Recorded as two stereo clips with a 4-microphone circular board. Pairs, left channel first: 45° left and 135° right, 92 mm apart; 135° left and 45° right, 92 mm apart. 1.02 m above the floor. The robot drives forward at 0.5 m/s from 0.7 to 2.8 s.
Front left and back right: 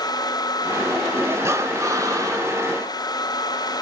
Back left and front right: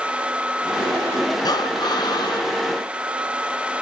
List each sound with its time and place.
1.4 s breathing: 170° left, 0.6 m; by 2.6 s 175° left, 1.2 m